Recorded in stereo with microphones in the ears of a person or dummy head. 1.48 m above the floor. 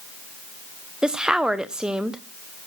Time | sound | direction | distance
1.0 | a woman speaking | centre (ahead or behind) | 0.9 m